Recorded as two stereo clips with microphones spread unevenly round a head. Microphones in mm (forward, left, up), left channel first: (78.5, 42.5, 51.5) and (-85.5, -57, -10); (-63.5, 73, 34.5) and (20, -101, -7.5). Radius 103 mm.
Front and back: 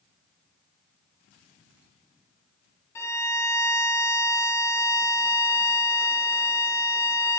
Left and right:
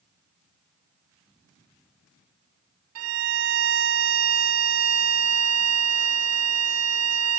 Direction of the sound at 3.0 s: 40° right.